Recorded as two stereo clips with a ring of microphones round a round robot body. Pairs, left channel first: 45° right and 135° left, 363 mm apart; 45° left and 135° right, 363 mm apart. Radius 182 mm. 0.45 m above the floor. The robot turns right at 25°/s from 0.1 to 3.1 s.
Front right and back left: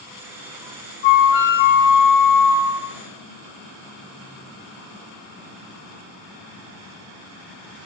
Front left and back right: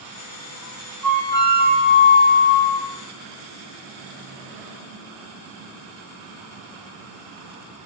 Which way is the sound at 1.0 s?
40° right.